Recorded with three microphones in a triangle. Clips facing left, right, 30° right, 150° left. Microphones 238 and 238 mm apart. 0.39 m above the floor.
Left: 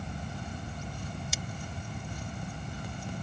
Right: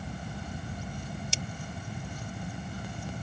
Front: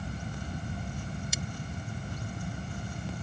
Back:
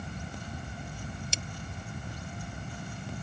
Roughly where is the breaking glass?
Behind right.